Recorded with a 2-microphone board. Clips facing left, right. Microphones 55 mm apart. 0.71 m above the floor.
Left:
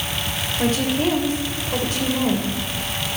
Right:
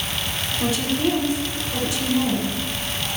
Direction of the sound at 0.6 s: 45° left (ahead or behind).